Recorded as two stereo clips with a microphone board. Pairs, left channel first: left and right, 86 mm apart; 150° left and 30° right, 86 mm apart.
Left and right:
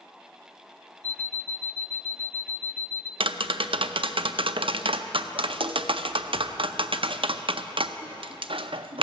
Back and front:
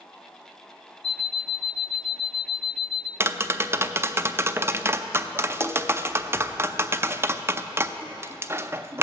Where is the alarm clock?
125° right, 0.9 m.